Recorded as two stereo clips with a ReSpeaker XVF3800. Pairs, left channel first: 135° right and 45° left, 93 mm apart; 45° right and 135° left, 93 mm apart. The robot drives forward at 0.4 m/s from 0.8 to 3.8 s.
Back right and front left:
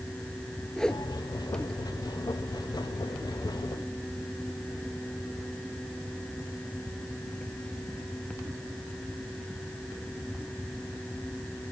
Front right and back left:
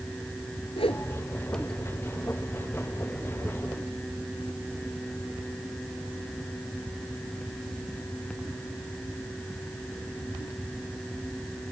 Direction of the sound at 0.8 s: 55° right.